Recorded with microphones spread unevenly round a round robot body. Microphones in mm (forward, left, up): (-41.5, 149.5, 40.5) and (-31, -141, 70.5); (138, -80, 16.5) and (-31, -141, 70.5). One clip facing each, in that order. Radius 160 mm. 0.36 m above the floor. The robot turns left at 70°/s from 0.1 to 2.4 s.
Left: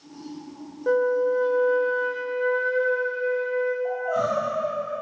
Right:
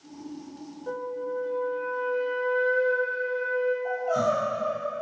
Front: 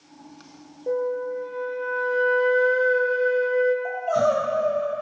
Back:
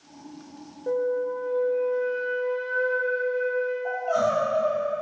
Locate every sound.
0.9 s a flute: 115° left, 1.0 m; by 3.8 s 10° left, 1.0 m
3.9 s crying: 30° right, 4.5 m